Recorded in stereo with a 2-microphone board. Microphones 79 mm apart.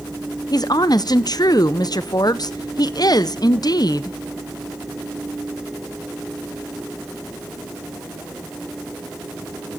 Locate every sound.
0.5 s a woman speaking: 55° left (ahead or behind), 0.7 m